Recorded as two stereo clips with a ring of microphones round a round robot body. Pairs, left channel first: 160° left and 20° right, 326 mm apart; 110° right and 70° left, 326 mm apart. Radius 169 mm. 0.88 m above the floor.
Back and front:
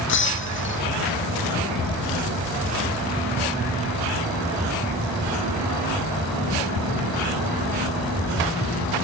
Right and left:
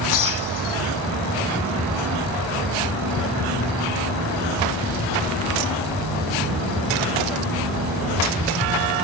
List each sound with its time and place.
0.1 s breaking glass: 145° right